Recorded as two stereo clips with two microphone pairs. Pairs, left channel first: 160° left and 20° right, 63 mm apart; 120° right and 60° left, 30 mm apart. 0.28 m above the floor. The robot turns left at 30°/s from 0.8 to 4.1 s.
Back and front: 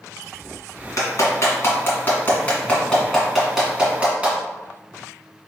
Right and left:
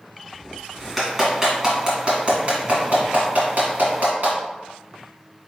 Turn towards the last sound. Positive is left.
turn(degrees=50)